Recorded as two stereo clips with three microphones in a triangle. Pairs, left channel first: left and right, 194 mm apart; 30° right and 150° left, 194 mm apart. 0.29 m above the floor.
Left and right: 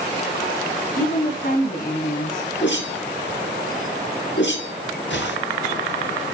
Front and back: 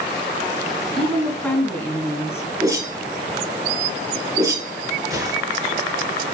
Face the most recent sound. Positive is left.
turn(degrees=80)